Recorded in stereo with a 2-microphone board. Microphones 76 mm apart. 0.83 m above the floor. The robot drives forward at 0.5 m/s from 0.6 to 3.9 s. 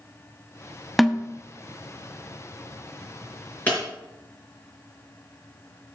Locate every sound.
1.0 s a snare drum: centre (ahead or behind), 0.7 m
3.7 s breaking glass: 25° left (ahead or behind), 5.5 m